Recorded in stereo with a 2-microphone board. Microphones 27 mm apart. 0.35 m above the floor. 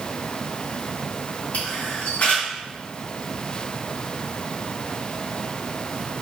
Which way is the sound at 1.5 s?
60° left (ahead or behind).